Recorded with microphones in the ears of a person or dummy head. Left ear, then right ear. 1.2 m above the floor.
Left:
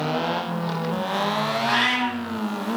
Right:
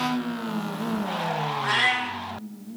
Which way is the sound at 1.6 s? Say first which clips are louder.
Even; 65° right (ahead or behind).